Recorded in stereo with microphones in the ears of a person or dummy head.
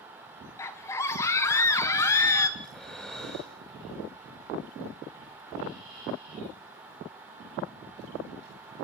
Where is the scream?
15° left (ahead or behind), 1.1 m.